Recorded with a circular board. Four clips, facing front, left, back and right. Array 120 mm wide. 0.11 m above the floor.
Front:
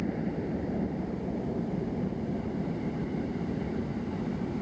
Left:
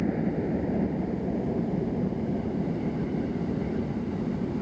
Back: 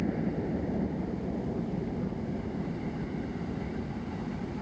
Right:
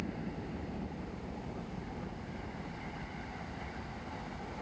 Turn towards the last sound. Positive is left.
turn(degrees=75)